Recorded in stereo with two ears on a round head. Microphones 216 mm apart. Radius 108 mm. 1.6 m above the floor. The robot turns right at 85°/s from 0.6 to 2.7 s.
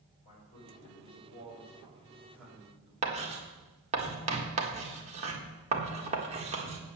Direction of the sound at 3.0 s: 30° right (ahead or behind).